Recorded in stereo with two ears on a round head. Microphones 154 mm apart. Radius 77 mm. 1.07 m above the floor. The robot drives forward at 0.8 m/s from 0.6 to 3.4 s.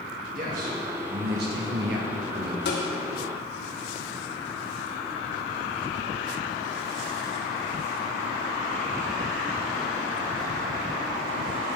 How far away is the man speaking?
About 1.8 m.